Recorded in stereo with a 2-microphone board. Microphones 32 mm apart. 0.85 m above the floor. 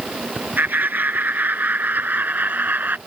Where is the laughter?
80° right.